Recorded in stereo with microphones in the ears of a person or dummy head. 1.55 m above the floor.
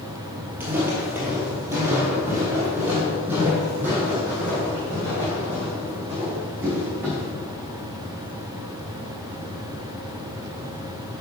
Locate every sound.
0.6 s footsteps: 10° right (ahead or behind), 2 m